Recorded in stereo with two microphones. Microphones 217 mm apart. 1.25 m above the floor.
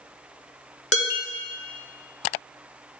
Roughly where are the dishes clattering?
Left.